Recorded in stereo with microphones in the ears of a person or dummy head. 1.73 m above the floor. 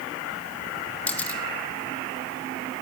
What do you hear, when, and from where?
1.1 s a camera shutter: 10° left (ahead or behind), 2.5 m